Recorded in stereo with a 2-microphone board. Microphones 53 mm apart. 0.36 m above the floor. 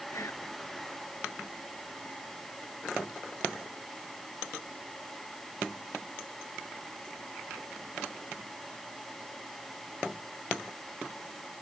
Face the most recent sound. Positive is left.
turn(degrees=60)  # may be behind; listen again after turning